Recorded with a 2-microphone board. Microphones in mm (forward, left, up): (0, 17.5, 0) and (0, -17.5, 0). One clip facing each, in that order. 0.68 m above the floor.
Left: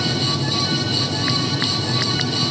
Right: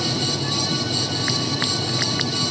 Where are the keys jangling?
No keys jangling in this recording.